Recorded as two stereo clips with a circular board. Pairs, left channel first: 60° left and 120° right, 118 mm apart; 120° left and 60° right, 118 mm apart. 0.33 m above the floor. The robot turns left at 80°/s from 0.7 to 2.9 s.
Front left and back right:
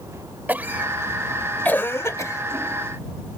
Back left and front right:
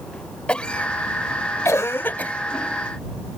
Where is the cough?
175° right; by 3.4 s 10° left.